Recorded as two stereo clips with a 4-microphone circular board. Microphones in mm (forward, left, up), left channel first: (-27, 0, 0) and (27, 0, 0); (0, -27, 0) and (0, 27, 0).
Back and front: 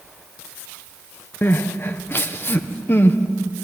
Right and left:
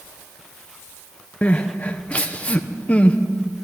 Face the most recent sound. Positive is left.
turn(degrees=-150)